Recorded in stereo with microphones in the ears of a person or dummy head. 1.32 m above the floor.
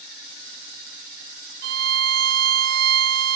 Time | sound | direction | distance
1.6 | a violin | 55° right (ahead or behind) | 0.6 m